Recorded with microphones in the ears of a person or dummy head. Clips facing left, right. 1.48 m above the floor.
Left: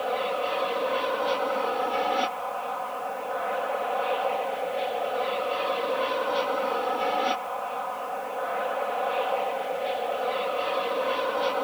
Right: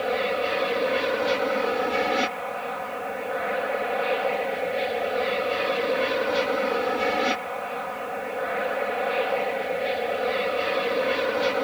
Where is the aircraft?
30° right (ahead or behind).